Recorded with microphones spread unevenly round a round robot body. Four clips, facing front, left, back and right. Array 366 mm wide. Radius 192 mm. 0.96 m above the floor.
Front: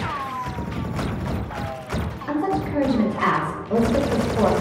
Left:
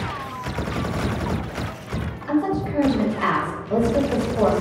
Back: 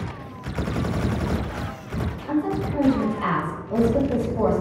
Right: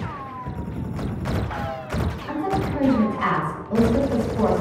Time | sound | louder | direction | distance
2.3 | a woman speaking | left 4 dB, front 1 dB | 15° left | 3 m